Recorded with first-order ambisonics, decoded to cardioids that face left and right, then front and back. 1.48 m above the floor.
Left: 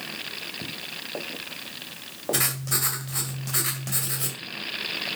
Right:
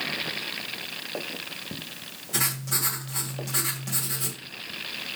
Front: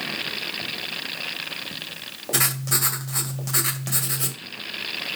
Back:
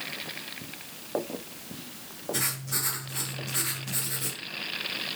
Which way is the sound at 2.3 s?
20° left.